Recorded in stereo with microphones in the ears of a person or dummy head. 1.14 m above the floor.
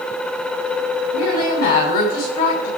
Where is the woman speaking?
55° left (ahead or behind), 6.5 m.